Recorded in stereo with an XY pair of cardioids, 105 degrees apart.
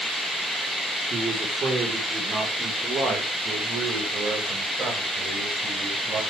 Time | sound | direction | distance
1.1 | a man speaking | 45° right | 4.5 m